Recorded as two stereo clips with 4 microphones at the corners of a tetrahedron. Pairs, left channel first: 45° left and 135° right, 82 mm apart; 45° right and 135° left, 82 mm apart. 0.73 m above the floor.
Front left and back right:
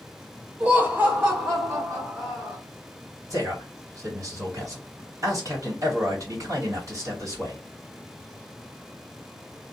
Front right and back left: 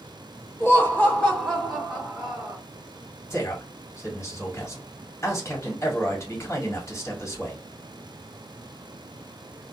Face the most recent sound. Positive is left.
turn(degrees=-95)